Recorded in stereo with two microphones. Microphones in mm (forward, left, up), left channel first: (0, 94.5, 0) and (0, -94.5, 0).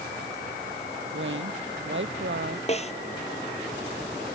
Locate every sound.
1.1 s a woman speaking: 75° right (ahead or behind)
2.7 s a snare drum: 35° left (ahead or behind)